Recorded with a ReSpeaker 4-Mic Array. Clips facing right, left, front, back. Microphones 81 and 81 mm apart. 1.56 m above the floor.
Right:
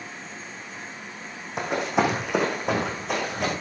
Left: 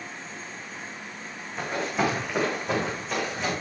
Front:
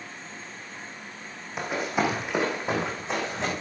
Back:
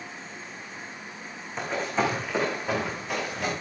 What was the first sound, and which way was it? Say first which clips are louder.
Running footsteps: right 3 dB, even; 80° right.